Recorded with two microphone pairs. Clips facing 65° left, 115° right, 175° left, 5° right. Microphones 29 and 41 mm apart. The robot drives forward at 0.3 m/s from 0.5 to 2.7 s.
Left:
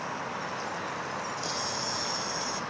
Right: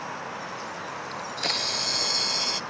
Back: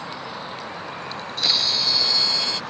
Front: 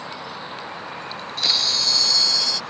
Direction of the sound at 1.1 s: 90° right.